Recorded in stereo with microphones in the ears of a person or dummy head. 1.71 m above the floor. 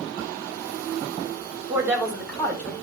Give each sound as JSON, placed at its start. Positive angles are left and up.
{"t": 1.7, "sound": "a woman speaking", "side_deg": -15, "distance_m": 2.0}